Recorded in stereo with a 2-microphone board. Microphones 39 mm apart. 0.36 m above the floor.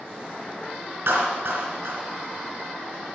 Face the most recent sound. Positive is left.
turn(degrees=-75)  # may be behind; listen again after turning